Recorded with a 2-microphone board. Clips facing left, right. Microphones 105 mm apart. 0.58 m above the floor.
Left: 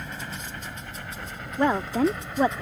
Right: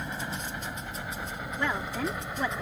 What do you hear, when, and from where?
0.0 s a helicopter: 15° right (ahead or behind); by 2.6 s 10° right (ahead or behind)
1.6 s a woman speaking: 40° left (ahead or behind)